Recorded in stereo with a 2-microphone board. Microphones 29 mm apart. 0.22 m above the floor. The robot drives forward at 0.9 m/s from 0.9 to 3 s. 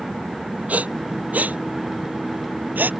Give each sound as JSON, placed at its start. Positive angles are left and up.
{"t": 0.7, "sound": "breathing", "side_deg": -55}